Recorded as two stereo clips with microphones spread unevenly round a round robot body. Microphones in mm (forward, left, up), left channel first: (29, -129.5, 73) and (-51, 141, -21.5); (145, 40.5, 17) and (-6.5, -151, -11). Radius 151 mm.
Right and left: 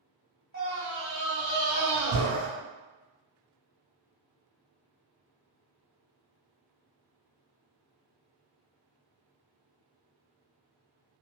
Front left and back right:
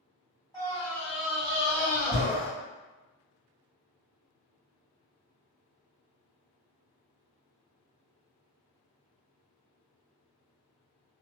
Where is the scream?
130° left, 1.9 m.